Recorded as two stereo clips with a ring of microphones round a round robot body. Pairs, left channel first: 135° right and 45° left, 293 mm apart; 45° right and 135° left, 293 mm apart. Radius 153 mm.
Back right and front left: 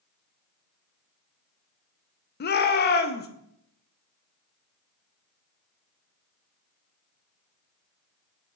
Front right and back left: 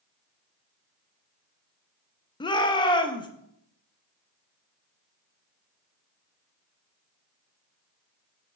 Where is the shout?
110° right, 0.6 m.